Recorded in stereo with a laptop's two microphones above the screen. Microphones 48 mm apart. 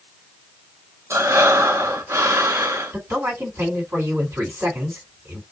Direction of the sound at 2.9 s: 60° right (ahead or behind).